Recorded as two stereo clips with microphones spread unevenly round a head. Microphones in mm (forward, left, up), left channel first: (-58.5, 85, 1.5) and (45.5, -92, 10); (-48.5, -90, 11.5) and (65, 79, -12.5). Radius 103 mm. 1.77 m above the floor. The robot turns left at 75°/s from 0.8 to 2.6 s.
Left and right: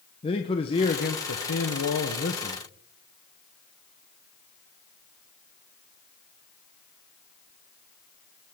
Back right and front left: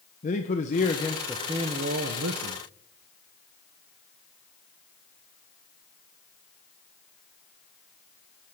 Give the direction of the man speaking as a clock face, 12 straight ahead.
6 o'clock.